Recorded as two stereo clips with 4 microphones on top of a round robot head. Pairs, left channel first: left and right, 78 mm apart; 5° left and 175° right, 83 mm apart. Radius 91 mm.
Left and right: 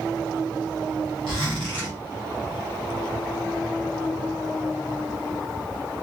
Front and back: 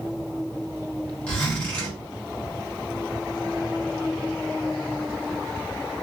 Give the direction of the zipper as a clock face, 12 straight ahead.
9 o'clock.